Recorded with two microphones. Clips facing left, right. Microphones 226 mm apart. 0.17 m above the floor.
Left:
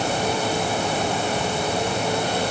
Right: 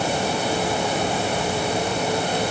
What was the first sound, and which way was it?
Only background noise.